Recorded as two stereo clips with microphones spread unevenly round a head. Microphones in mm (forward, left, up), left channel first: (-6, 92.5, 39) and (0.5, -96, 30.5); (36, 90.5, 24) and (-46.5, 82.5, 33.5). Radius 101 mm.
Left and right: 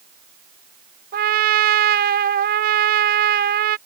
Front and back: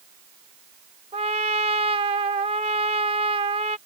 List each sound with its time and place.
1.1 s a trumpet: 135° right